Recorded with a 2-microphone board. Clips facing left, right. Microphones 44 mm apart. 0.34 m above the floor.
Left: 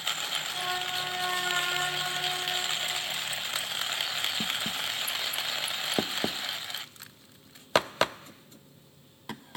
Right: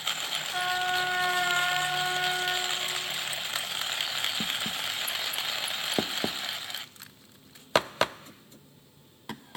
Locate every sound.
0.5 s a trumpet: 45° right (ahead or behind), 1.8 m